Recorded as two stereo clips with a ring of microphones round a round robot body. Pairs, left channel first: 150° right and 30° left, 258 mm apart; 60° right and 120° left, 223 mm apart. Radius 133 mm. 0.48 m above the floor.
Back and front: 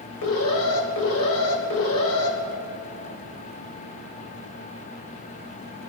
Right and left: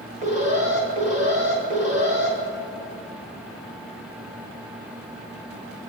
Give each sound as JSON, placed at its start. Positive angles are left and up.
{"t": 0.2, "sound": "an alarm", "azimuth_deg": 180, "distance_m": 2.0}